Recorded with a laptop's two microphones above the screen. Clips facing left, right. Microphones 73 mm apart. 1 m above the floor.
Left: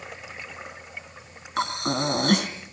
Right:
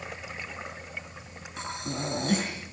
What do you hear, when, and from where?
0.0 s a fan: 75° right (ahead or behind), 8 m
1.6 s breathing: 70° left (ahead or behind), 3 m